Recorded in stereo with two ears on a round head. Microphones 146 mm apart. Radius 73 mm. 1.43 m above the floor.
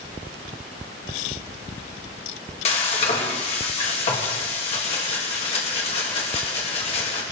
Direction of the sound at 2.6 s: 40° left (ahead or behind).